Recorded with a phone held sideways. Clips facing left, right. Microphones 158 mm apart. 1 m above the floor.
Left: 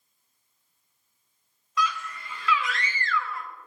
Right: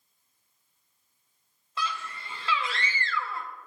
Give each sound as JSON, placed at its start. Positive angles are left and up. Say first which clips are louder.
{"t": 1.8, "sound": "a scream", "louder": "left 5 dB", "side_deg": -30, "distance_m": 1.1}